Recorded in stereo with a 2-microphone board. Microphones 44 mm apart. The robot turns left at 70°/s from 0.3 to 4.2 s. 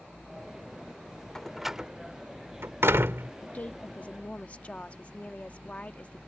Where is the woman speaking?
115° left; by 6.2 s 60° left.